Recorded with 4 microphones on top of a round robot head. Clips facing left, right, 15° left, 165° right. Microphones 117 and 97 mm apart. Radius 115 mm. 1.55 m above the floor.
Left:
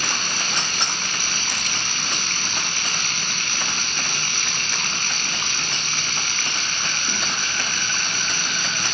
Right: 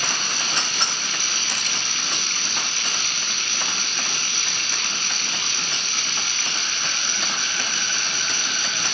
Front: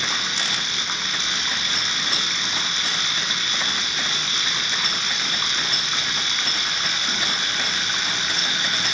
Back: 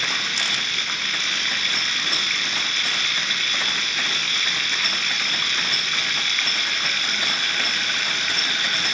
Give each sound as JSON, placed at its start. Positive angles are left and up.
{"t": 0.0, "sound": "running water", "azimuth_deg": 70, "distance_m": 1.7}